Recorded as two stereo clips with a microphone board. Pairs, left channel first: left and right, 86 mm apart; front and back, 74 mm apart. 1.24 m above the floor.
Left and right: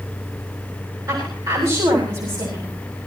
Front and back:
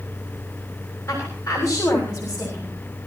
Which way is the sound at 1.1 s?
50° right.